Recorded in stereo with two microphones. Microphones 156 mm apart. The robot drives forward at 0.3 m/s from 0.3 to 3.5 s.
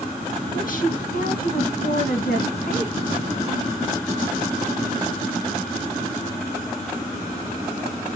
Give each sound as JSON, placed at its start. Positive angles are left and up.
{"t": 0.5, "sound": "a woman speaking", "side_deg": 60, "distance_m": 1.8}